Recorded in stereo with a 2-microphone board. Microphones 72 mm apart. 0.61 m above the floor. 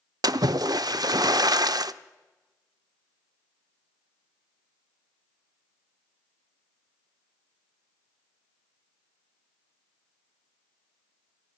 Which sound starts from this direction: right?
A splash, at 0.2 s.